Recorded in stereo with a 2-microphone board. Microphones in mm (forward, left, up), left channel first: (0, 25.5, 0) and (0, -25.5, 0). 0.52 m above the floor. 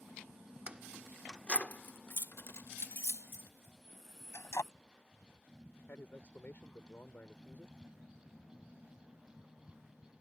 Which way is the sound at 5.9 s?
50° left (ahead or behind).